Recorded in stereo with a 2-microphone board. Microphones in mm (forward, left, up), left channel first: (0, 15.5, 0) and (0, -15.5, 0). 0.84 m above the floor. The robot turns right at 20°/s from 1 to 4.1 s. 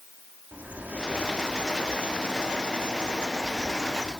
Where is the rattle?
No rattle in this recording.